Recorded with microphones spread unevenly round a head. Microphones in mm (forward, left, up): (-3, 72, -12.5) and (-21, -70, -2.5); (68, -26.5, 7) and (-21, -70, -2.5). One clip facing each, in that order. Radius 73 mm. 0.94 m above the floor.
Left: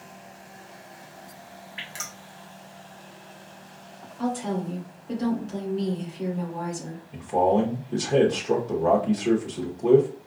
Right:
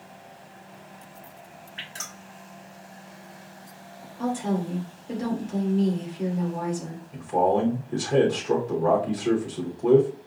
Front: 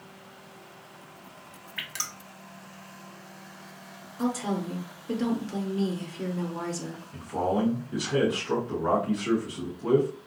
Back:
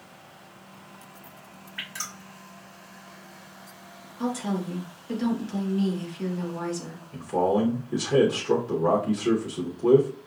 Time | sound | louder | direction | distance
1.8 | dripping | left 1 dB, even | 5° left | 1.1 m
4.2 | a woman speaking | right 1 dB, even | 10° right | 2 m
7.1 | a man speaking | left 1 dB, back 4 dB | 160° left | 0.9 m